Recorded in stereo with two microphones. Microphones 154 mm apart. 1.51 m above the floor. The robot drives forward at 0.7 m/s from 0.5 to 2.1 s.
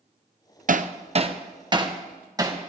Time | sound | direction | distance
0.7 | hammering | 60° right (ahead or behind) | 0.6 m